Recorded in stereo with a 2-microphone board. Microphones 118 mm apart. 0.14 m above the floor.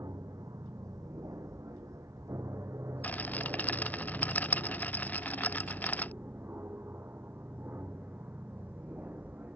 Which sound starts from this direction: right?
An aircraft, at 0.0 s.